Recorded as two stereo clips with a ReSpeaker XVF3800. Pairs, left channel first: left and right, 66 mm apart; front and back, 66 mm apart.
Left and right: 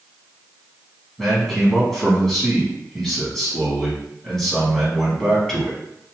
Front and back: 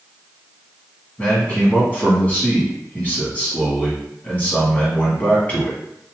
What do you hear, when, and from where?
1.2 s a man speaking: 15° left, 1.3 m